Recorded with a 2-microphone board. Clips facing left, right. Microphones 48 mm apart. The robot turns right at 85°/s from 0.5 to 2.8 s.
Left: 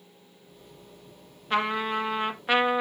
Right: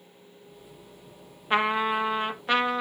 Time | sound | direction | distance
1.5 | a trumpet | 20° right (ahead or behind) | 0.8 m